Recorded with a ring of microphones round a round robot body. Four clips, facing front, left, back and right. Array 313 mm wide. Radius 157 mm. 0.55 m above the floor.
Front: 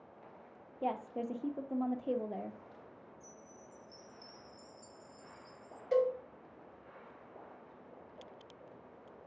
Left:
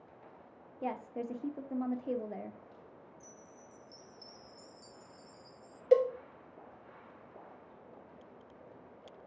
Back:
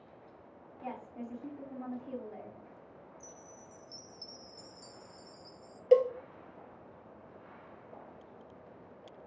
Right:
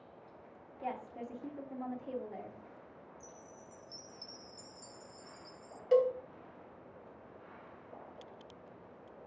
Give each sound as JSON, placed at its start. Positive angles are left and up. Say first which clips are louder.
{"t": 0.8, "sound": "a woman speaking", "louder": "left 3 dB, front 6 dB", "azimuth_deg": 35, "distance_m": 0.9}
{"t": 3.2, "sound": "a chime", "louder": "right 2 dB, back 2 dB", "azimuth_deg": -160, "distance_m": 0.9}
{"t": 5.9, "sound": "a cowbell", "louder": "left 2 dB, back 6 dB", "azimuth_deg": 145, "distance_m": 0.9}